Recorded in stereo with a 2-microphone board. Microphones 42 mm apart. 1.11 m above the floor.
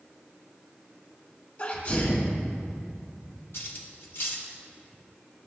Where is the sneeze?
45° left (ahead or behind), 1.8 m.